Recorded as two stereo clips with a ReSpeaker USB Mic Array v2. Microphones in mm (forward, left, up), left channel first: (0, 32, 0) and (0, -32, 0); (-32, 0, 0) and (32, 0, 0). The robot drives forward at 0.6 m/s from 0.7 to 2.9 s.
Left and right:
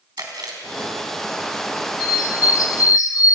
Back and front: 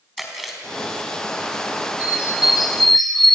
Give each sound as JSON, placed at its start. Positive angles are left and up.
{"t": 0.2, "sound": "chewing", "azimuth_deg": -90, "distance_m": 4.5}
{"t": 2.0, "sound": "a bird", "azimuth_deg": 70, "distance_m": 1.5}